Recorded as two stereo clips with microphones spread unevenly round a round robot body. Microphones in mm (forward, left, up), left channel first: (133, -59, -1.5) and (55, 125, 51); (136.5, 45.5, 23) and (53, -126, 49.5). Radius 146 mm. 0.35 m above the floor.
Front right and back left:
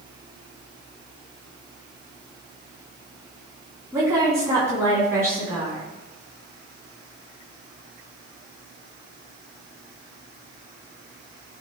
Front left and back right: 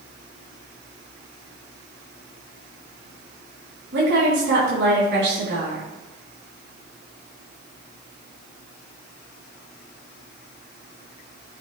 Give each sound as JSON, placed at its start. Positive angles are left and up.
{"t": 3.9, "sound": "a woman speaking", "azimuth_deg": -160, "distance_m": 3.0}